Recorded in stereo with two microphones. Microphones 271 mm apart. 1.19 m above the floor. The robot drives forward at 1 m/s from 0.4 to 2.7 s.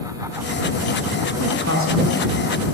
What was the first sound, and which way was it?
A woman speaking, 65° right (ahead or behind).